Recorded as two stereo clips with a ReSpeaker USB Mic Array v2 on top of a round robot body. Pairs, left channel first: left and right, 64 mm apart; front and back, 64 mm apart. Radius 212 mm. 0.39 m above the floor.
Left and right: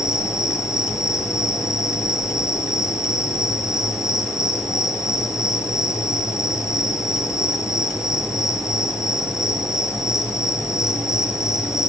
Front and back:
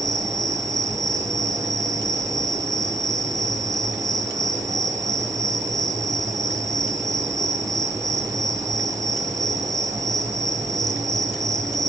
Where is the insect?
170° right, 2.5 m.